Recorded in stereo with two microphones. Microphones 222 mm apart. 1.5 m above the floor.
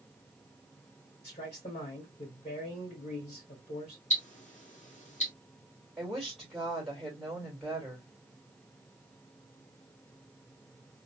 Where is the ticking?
35° left (ahead or behind), 1.7 m.